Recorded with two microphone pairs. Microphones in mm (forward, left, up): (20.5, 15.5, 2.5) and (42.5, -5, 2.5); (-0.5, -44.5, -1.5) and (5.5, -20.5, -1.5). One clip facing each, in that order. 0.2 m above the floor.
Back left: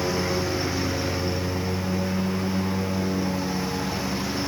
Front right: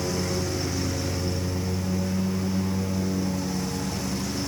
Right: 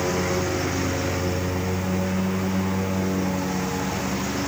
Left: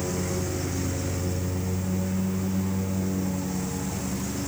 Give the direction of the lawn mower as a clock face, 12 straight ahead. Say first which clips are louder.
Back left 3 dB, right 6 dB; 5 o'clock.